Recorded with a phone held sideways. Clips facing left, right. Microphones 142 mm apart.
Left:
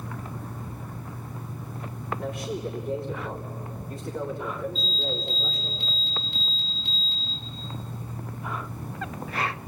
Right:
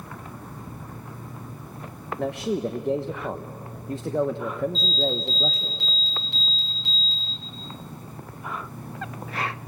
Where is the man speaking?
85° right, 1.2 m.